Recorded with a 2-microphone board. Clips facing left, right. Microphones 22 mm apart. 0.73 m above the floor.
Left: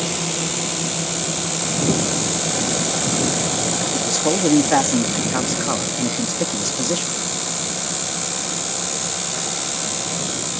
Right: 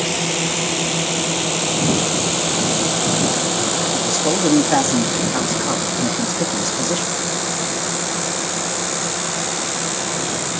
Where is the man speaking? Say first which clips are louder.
Right 1 dB; centre (ahead or behind).